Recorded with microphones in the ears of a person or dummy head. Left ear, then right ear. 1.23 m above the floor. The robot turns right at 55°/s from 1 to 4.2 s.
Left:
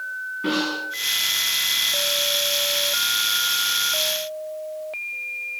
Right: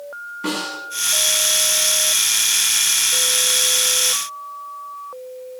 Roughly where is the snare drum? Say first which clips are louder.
Left 1 dB; right.